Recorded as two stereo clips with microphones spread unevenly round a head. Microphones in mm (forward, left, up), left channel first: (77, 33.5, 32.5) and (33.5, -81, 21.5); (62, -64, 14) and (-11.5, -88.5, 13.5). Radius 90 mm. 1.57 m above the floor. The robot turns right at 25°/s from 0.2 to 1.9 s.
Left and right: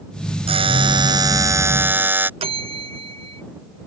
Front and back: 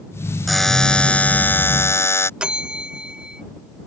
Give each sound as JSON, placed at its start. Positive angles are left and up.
{"t": 0.5, "sound": "a buzzer", "azimuth_deg": -70}
{"t": 2.4, "sound": "a bell", "azimuth_deg": -85}